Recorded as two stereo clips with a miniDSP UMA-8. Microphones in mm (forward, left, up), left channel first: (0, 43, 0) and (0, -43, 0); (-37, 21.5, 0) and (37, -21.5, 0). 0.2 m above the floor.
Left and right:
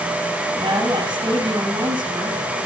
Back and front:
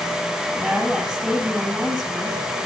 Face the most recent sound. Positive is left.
turn(degrees=-110)